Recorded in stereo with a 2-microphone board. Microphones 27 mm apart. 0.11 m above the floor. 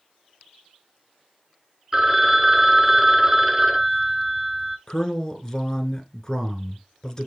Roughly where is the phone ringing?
Centre.